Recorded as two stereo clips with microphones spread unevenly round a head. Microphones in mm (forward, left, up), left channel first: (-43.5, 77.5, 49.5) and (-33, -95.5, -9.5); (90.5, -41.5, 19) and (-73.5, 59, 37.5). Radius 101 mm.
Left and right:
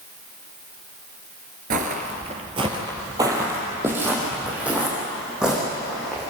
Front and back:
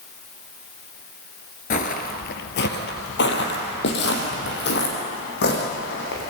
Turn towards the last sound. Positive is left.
turn(degrees=5)